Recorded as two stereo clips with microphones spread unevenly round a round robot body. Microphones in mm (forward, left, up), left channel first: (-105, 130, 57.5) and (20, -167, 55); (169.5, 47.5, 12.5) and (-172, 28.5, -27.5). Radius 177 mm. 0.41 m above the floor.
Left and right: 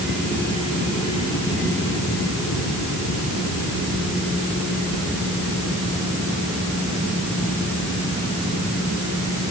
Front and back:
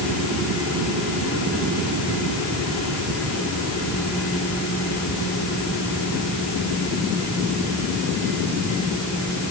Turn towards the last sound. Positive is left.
No sound to turn to.